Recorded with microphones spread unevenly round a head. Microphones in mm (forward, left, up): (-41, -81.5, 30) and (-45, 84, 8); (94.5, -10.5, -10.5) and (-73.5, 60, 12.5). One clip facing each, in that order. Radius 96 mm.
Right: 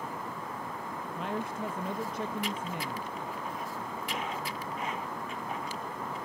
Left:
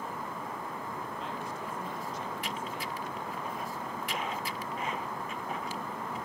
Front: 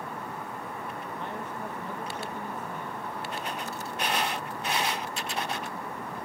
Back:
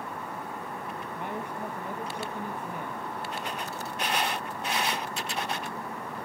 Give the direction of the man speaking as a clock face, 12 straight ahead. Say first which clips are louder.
Right 4 dB, back 3 dB; 4 o'clock.